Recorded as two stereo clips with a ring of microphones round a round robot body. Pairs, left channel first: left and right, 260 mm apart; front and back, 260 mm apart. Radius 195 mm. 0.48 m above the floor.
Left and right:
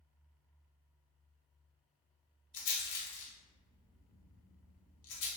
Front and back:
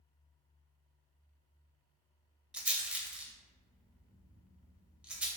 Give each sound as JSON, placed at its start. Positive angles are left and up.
{"t": 2.5, "sound": "a rattle", "azimuth_deg": 95, "distance_m": 0.8}